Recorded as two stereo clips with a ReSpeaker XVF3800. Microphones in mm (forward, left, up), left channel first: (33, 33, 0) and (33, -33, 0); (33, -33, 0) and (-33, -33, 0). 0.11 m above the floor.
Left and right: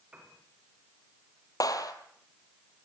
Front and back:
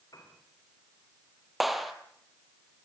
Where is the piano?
20° right, 9.5 m.